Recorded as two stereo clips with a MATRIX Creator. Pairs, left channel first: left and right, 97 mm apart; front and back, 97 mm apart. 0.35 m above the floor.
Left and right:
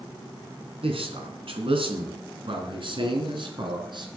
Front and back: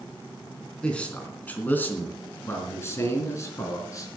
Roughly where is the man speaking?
Right.